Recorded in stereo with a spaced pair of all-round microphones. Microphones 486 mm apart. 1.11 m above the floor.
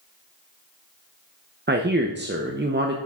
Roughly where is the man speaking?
Right.